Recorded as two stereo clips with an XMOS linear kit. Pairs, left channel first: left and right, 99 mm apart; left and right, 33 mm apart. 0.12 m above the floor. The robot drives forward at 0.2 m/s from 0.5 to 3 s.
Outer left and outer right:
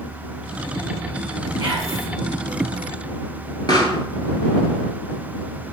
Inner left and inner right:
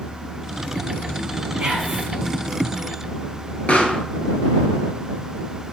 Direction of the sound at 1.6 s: 15° right (ahead or behind).